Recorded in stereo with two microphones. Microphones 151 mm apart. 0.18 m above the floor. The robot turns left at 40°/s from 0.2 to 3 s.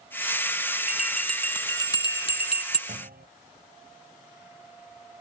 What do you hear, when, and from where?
0.9 s a bell: 10° right (ahead or behind); by 2.8 s 50° left (ahead or behind)
2.9 s a clunk: 85° right; by 3.3 s 80° right